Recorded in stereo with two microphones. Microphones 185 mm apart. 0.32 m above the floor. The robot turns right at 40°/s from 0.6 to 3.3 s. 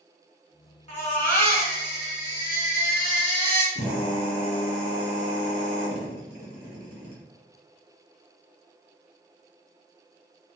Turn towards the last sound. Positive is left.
turn(degrees=40)  # may be behind; listen again after turning